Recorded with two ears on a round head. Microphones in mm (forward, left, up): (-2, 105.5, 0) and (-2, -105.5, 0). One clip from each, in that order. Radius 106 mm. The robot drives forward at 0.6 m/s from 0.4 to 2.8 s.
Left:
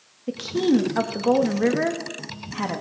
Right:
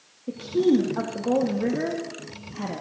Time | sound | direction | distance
0.3 | a woman speaking | 50° left (ahead or behind) | 1.5 m